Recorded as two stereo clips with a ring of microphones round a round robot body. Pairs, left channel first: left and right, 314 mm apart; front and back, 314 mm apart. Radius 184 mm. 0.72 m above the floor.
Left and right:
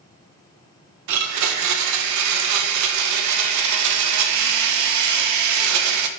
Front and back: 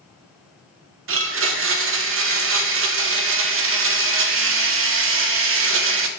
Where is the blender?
125° right, 0.5 m.